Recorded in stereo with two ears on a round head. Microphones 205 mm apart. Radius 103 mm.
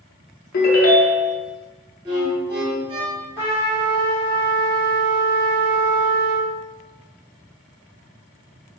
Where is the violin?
20° right (ahead or behind), 0.9 m.